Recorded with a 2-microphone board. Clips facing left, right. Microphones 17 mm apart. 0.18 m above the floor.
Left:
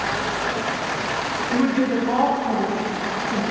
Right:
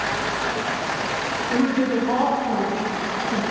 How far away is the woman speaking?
About 1.4 m.